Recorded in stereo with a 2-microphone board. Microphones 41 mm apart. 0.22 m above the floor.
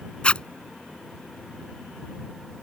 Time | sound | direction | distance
0.2 | a zipper | 30° left (ahead or behind) | ?